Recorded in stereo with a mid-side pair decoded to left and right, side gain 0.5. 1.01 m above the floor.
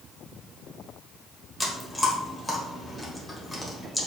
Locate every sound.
1.6 s chewing: 15° left, 1.6 m